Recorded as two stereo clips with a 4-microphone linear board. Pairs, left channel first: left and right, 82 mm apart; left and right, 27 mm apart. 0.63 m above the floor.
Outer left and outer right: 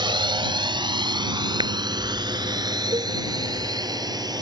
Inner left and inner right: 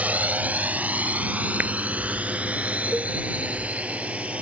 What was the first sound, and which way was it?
A drone, 75° right (ahead or behind).